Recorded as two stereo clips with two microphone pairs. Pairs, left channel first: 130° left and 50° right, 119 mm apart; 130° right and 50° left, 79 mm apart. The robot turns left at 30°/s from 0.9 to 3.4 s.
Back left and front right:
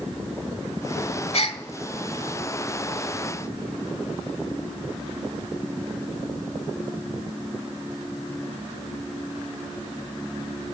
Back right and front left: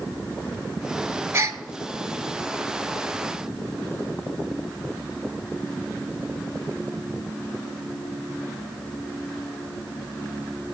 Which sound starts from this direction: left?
A gasp, at 1.3 s.